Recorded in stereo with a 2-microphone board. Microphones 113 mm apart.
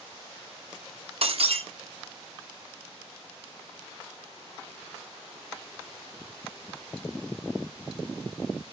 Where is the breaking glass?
65° right (ahead or behind), 1.0 m.